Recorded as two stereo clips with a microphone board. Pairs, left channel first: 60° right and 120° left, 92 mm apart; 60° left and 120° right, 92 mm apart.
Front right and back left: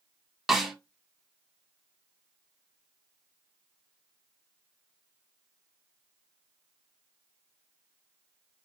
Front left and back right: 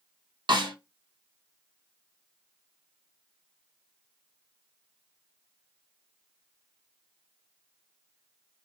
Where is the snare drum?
155° right, 0.7 m.